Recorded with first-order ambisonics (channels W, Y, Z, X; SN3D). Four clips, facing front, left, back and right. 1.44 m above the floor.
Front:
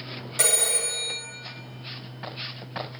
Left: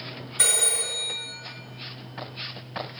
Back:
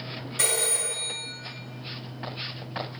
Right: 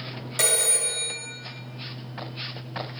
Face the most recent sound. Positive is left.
turn(degrees=-60)